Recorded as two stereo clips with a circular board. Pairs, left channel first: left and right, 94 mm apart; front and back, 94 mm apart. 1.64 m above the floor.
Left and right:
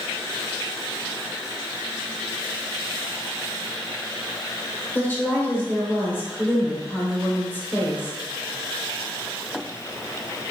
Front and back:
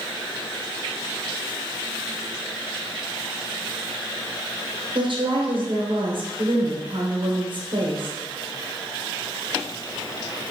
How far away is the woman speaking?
About 0.9 m.